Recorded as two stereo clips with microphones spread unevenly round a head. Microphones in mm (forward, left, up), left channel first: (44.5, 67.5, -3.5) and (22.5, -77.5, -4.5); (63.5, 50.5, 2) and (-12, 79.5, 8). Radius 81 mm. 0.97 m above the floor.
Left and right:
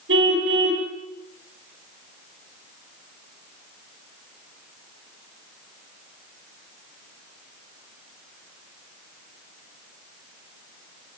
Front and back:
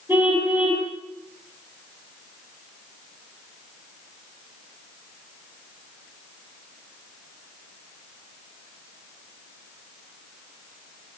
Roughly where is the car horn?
Behind right.